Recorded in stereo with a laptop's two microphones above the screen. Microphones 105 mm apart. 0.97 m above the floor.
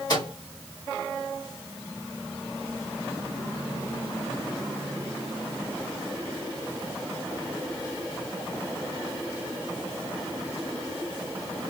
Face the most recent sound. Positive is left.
turn(degrees=40)  # may be behind; listen again after turning